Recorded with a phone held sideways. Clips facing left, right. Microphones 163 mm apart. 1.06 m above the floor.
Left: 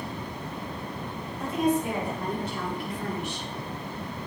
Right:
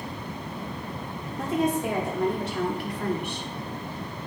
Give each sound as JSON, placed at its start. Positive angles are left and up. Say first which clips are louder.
{"t": 1.4, "sound": "a woman speaking", "louder": "even", "side_deg": -80, "distance_m": 3.0}